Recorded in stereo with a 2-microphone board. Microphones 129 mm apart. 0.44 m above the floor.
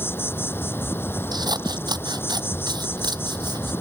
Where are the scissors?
35° right (ahead or behind).